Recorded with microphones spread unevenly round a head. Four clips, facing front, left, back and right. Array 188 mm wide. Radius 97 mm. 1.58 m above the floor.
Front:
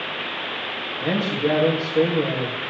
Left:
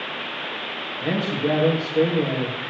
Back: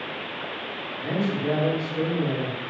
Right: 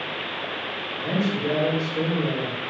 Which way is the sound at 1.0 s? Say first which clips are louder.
Left 1 dB, front 3 dB; 15° left.